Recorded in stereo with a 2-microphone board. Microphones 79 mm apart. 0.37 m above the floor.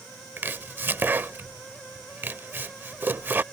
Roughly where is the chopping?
Right.